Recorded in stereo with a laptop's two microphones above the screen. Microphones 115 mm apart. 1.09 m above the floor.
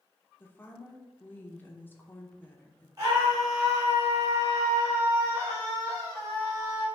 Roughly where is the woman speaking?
Centre.